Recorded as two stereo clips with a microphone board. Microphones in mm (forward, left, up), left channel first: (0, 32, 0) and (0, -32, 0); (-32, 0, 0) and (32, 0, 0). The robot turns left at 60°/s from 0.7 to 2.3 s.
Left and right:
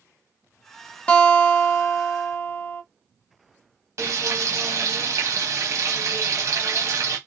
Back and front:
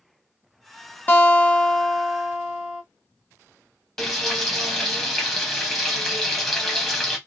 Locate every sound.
1.1 s a guitar: 145° left, 0.9 m; by 2.8 s 75° left, 0.9 m
4.0 s frying: 100° right, 1.1 m